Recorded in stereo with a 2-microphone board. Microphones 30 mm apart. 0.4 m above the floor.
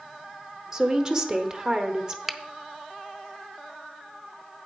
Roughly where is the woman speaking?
Right.